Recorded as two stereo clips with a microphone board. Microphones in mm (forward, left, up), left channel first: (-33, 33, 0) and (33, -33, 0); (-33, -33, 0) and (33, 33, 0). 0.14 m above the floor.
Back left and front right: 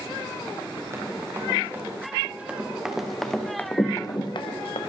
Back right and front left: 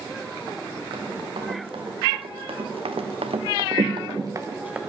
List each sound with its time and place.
0.9 s running footsteps: 15° left, 4 m; by 4.8 s 120° left, 1.4 m